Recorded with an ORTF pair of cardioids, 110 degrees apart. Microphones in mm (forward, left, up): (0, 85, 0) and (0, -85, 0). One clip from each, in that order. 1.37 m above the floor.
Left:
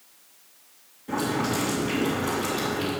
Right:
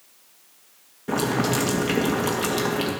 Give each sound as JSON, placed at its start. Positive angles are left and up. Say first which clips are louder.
{"t": 1.1, "sound": "boiling", "louder": "right 3 dB", "azimuth_deg": -55, "distance_m": 2.0}